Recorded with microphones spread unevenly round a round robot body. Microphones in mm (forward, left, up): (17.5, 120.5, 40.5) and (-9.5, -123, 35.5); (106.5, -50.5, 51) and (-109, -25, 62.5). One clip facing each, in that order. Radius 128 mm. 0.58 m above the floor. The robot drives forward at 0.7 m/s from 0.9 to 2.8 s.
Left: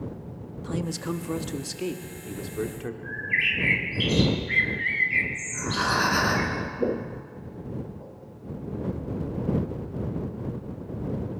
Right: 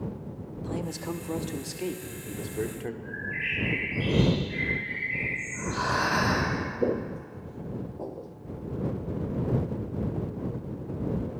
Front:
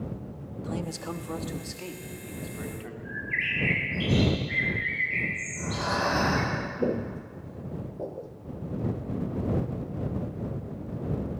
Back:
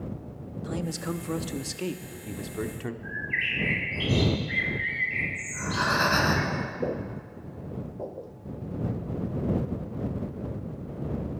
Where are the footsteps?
15° left, 0.6 m; by 8.3 s 90° right, 1.1 m.